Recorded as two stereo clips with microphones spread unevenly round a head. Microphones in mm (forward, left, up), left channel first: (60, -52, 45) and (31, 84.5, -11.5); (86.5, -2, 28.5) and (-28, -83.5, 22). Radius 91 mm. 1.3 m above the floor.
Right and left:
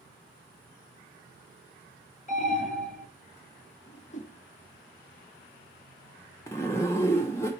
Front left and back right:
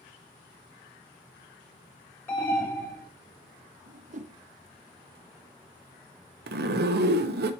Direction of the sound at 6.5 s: 150° right.